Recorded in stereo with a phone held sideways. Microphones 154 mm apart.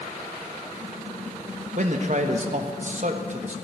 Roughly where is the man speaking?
Right.